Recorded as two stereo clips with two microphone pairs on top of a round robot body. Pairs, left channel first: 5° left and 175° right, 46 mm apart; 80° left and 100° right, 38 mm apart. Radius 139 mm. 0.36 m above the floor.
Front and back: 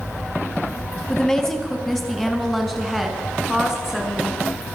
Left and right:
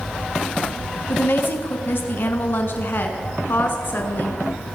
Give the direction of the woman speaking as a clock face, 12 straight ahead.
9 o'clock.